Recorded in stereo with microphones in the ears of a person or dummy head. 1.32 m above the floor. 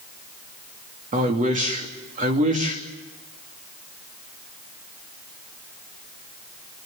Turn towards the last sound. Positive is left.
turn(degrees=-35)  # may be behind; listen again after turning